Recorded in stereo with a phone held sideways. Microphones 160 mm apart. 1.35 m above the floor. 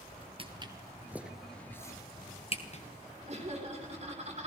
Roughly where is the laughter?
Right.